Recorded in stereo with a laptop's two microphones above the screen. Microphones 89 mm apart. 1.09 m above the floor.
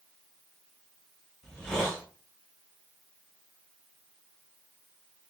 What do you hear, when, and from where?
1.4 s a hiss: 5° left (ahead or behind), 0.9 m